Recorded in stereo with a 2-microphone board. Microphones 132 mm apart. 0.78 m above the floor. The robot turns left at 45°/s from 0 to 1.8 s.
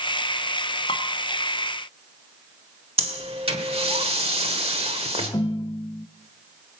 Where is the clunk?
No clunk in this recording.